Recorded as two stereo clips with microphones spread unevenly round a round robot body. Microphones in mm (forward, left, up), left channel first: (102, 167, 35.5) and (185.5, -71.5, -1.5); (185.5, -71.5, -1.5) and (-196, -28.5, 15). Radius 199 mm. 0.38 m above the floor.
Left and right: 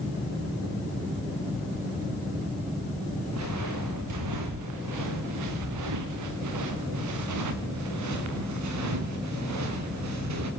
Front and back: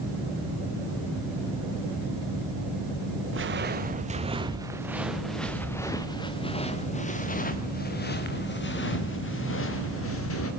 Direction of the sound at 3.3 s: 125° right.